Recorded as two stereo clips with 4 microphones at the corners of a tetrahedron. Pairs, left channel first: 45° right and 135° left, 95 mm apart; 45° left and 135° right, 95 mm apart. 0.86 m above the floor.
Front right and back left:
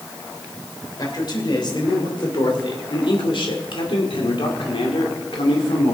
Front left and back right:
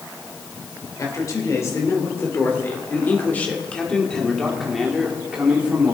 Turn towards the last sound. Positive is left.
turn(degrees=-65)